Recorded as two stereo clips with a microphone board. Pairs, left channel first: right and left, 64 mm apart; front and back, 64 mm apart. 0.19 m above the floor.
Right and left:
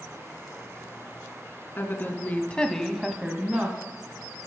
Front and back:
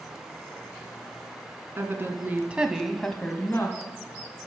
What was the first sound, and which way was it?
A woman speaking, 140° right.